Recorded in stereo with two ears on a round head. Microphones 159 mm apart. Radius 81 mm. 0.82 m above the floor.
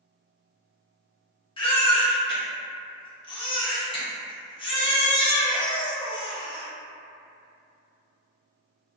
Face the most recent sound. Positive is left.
turn(degrees=30)  # may be behind; listen again after turning